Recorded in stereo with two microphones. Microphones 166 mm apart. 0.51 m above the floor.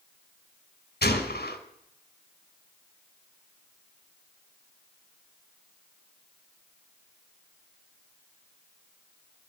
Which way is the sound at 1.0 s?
70° left (ahead or behind).